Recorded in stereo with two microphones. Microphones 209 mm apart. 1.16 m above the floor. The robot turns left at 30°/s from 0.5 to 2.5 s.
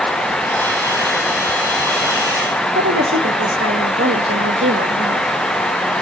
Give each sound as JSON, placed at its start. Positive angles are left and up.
{"t": 2.8, "sound": "a woman speaking", "side_deg": -75, "distance_m": 1.7}